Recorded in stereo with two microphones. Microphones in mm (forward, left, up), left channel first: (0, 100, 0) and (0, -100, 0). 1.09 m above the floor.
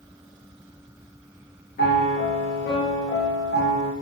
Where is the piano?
60° left (ahead or behind), 0.6 m.